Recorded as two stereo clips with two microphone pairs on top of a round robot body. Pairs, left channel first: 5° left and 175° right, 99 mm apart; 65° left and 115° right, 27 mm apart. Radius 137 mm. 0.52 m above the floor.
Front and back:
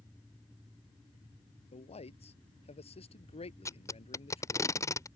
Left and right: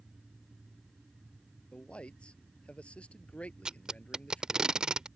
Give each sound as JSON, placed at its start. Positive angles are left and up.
{"t": 1.7, "sound": "a man speaking", "azimuth_deg": 10}
{"t": 3.6, "sound": "tape being pulled", "azimuth_deg": -55}